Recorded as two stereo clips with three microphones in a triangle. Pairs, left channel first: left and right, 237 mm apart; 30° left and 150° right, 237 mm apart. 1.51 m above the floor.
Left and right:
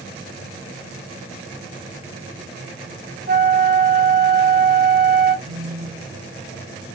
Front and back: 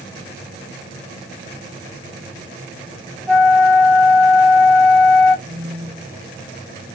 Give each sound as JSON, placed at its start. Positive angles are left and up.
{"t": 3.3, "sound": "a flute", "azimuth_deg": -55, "distance_m": 1.5}
{"t": 5.5, "sound": "a phone buzzing", "azimuth_deg": -105, "distance_m": 1.6}